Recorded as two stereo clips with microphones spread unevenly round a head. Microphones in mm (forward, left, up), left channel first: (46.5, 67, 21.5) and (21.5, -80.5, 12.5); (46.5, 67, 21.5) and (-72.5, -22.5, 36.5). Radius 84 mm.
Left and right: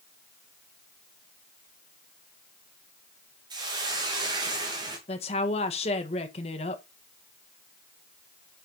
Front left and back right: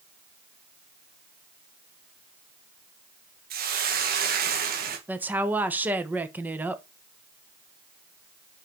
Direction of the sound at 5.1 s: 135° left.